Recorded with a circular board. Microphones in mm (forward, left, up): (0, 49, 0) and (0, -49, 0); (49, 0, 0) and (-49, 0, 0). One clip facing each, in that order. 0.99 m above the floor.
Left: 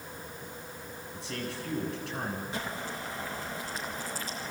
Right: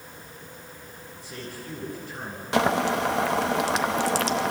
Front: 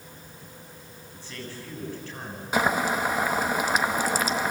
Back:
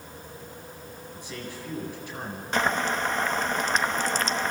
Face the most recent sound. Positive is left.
turn(degrees=-80)